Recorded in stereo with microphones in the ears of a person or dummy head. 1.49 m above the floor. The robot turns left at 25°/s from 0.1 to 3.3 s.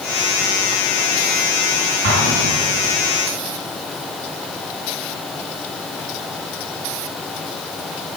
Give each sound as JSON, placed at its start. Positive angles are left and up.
{"t": 2.0, "sound": "an explosion", "side_deg": -70, "distance_m": 6.5}